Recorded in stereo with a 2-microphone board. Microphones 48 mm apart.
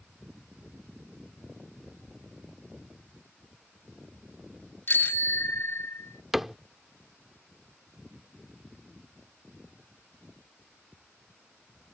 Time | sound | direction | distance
4.9 | a bicycle bell | 50° left (ahead or behind) | ?
6.3 | a cupboard door | 5° right (ahead or behind) | ?